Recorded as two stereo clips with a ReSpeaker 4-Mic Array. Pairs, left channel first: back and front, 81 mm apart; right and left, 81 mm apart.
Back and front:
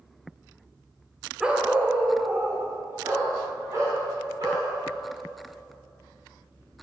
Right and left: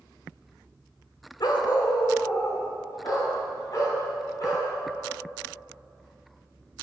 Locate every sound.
1.4 s a dog barking: 80° right, 0.9 m; by 4.7 s 45° right, 3.5 m